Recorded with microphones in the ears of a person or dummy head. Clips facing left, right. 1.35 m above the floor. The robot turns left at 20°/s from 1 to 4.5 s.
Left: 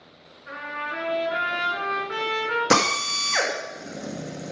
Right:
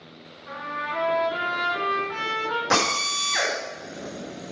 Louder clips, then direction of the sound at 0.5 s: Right 1 dB; 155° left.